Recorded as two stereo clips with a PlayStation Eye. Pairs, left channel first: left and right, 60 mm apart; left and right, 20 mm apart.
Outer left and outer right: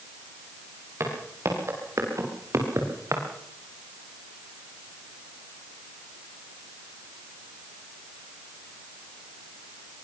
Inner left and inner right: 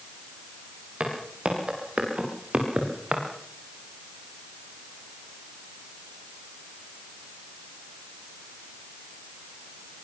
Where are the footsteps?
50° right (ahead or behind), 8 m; by 3.2 s 60° right (ahead or behind), 5 m.